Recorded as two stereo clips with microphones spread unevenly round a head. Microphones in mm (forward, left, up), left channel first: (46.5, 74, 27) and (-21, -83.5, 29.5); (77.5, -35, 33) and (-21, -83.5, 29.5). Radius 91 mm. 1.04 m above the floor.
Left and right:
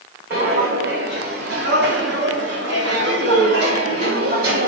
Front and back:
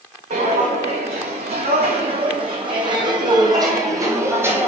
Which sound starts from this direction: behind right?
Footsteps, at 0.3 s.